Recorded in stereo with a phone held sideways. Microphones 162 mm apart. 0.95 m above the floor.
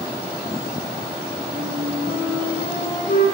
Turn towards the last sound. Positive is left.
turn(degrees=55)  # may be behind; listen again after turning